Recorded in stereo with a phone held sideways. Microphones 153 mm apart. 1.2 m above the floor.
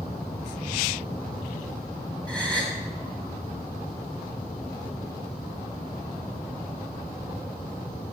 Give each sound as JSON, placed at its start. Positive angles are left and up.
{"t": 2.3, "sound": "a gasp", "side_deg": 5, "distance_m": 2.5}